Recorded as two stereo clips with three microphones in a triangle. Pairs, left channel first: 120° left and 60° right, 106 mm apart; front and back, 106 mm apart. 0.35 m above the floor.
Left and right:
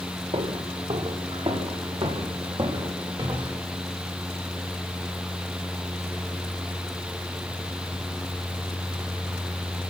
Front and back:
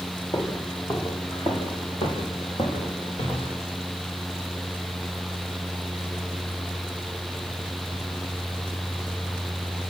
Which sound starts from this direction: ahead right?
Footsteps, at 0.3 s.